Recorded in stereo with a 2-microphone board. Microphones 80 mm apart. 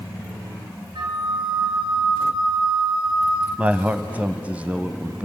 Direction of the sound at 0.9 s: 70° right (ahead or behind).